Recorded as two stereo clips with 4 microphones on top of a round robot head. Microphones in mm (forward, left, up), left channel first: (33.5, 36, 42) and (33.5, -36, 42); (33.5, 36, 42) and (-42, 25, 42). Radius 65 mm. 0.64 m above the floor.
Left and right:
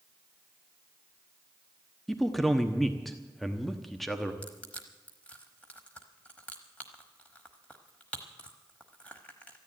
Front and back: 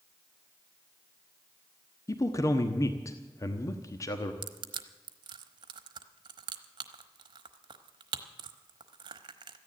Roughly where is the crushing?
Behind.